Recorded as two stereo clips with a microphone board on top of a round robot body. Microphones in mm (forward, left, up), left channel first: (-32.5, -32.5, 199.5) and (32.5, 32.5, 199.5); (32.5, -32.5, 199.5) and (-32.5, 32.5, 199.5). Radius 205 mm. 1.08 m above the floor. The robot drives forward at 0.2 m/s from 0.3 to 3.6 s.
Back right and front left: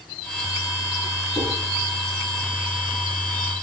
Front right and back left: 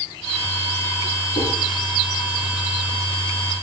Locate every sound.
1.4 s dishes clattering: 80° right, 8.5 m